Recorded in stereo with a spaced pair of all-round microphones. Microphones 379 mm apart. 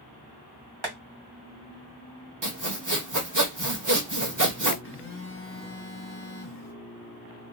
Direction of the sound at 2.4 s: 50° right (ahead or behind).